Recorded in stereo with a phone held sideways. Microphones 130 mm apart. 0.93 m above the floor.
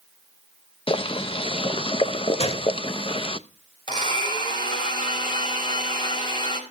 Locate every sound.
0.9 s boiling: 45° left (ahead or behind), 0.6 m
2.4 s a gunshot: 50° left (ahead or behind), 0.9 m
3.9 s a blender: 35° left (ahead or behind), 5.5 m